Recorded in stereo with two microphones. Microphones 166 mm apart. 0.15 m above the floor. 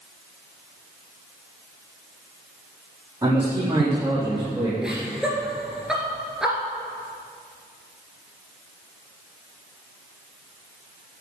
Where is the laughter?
5° right (ahead or behind), 2 m.